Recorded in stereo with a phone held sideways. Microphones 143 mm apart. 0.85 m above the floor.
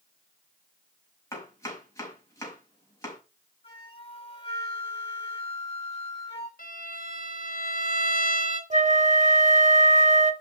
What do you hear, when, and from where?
1.3 s chopping: 20° left (ahead or behind), 5 m
3.6 s a flute: 35° left (ahead or behind), 6 m
6.6 s a violin: 80° left, 4 m
8.7 s a flute: 60° right (ahead or behind), 1.3 m